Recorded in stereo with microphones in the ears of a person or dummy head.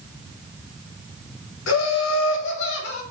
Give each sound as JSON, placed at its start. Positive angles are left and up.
{"t": 1.7, "sound": "laughter", "side_deg": 80, "distance_m": 0.7}